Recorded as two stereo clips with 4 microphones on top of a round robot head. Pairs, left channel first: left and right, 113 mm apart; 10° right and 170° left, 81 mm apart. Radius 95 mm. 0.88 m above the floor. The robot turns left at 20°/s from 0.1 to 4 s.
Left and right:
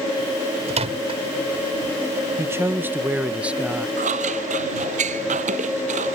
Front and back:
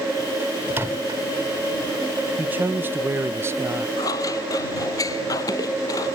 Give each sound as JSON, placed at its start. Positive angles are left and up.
{"t": 0.7, "sound": "a microwave", "azimuth_deg": -120}
{"t": 2.4, "sound": "a man speaking", "azimuth_deg": -140}
{"t": 4.0, "sound": "scissors", "azimuth_deg": -65}